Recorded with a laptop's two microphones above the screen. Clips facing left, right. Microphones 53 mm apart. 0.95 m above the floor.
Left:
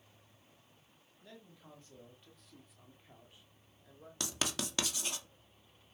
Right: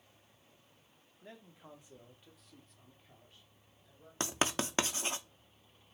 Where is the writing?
35° right (ahead or behind), 1.7 m.